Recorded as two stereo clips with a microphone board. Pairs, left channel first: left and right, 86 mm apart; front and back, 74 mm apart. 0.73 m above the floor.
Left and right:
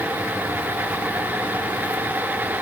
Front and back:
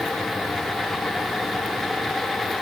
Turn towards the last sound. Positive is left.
No sound to turn to.